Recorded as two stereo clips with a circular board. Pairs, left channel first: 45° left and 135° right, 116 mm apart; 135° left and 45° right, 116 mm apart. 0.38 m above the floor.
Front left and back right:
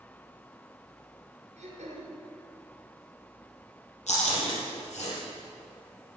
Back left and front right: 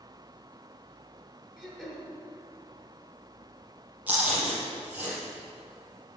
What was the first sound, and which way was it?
Throat clearing, 140° right.